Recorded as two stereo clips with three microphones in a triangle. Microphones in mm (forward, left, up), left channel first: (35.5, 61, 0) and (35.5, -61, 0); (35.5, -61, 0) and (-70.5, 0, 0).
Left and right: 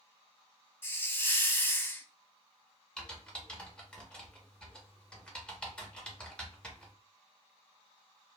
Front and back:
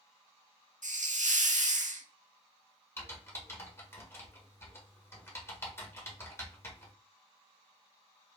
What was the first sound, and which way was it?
A hiss, 160° left.